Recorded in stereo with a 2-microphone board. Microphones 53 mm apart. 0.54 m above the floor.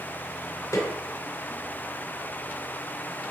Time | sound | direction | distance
0.7 | a snare drum | 70° left (ahead or behind) | 4 m